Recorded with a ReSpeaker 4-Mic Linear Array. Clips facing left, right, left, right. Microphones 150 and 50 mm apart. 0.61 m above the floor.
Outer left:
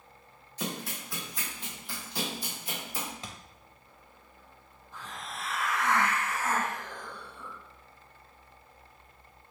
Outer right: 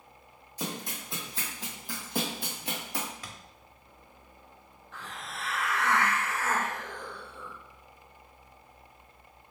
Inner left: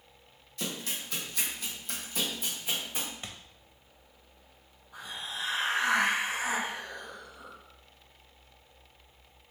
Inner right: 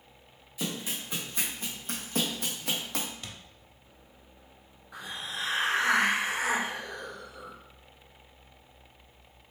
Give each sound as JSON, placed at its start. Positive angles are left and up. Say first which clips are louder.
{"t": 0.6, "sound": "running footsteps", "louder": "even, inner right 2 dB", "side_deg": -10, "distance_m": 1.6}
{"t": 3.2, "sound": "a thud", "louder": "outer left 2 dB, inner left 1 dB", "side_deg": 25, "distance_m": 0.5}
{"t": 4.9, "sound": "a hiss", "louder": "even, inner right 2 dB", "side_deg": -70, "distance_m": 1.3}